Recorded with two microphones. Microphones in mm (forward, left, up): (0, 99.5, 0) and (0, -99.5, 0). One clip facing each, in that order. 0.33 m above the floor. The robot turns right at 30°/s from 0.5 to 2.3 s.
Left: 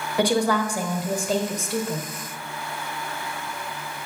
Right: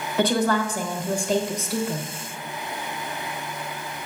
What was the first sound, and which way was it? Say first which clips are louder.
A woman speaking: even; 15° left (ahead or behind).